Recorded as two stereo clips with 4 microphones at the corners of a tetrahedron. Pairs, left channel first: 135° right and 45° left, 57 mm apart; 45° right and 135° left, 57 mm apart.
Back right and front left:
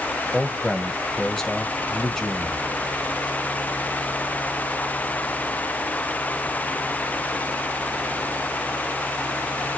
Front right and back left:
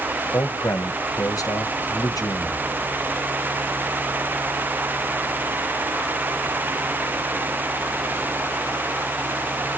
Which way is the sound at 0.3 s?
60° right.